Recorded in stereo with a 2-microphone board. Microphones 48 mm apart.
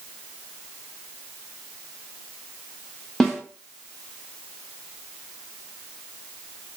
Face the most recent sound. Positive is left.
turn(degrees=10)  # may be behind; listen again after turning